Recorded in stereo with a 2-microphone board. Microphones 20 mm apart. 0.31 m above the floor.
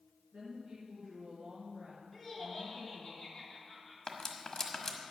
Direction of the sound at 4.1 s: 25° left (ahead or behind).